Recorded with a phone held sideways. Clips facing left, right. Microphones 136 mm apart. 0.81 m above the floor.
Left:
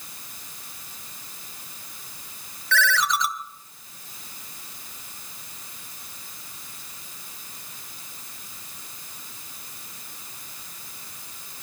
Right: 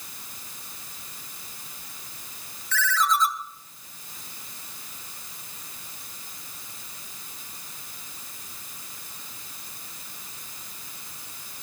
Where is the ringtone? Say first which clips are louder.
Left 1 dB; 75° left (ahead or behind), 0.6 m.